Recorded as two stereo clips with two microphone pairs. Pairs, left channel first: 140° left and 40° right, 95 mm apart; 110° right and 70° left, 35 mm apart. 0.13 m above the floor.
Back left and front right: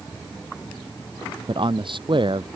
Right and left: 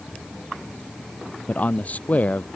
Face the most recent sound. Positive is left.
turn(degrees=-70)